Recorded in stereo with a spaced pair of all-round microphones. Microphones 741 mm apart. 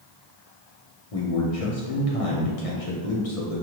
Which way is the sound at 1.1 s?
50° left (ahead or behind).